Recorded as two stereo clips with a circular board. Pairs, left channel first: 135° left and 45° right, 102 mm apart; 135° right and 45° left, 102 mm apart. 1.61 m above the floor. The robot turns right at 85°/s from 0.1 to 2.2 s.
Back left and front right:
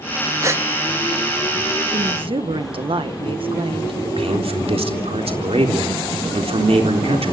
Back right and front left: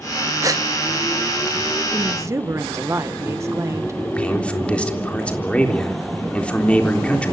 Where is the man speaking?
55° right, 3.5 m.